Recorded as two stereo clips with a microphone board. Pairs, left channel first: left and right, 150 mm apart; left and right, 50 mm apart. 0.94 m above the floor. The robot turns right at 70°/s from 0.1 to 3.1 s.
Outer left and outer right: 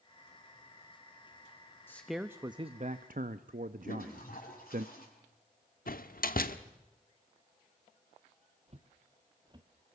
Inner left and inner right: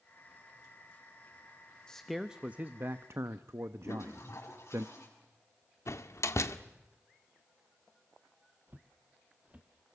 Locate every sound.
1.9 s a man speaking: 165° left, 0.8 m; by 4.8 s 110° right, 0.8 m
3.9 s a toilet flushing: 70° left (ahead or behind), 7 m
5.9 s a door slam: 75° left (ahead or behind), 1.3 m
8.7 s footsteps: 45° right (ahead or behind), 1.4 m; by 9.7 s 25° right (ahead or behind), 1.4 m